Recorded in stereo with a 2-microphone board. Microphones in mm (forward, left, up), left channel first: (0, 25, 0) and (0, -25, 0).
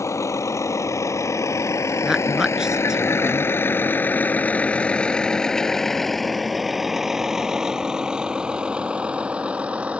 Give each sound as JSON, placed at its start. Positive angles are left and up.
{"t": 0.0, "sound": "a vehicle", "side_deg": 80}
{"t": 2.0, "sound": "a woman speaking", "side_deg": -10}